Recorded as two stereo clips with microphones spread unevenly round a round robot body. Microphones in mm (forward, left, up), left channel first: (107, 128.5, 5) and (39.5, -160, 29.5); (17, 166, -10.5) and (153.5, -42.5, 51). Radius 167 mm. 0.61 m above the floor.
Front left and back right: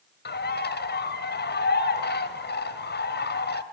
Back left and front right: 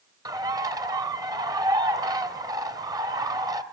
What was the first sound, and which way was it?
A bird, 20° left.